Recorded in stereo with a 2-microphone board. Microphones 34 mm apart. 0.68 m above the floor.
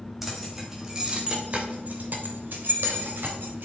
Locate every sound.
0.2 s keys jangling: 5° right (ahead or behind), 3 m; by 3.6 s 75° right (ahead or behind), 3.5 m